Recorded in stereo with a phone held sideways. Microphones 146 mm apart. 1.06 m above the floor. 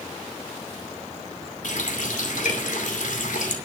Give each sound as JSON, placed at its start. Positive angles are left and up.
{"t": 1.6, "sound": "a running tap", "side_deg": 70, "distance_m": 2.5}